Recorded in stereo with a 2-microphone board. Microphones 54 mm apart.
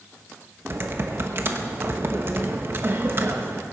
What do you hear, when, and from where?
0.7 s typing on a keyboard: 45° right (ahead or behind), 1.1 m